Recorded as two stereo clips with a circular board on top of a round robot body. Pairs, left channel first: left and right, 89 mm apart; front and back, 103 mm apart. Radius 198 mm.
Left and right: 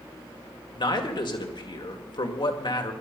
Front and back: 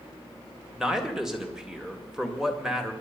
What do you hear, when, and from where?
0.8 s a man speaking: 95° left, 2.5 m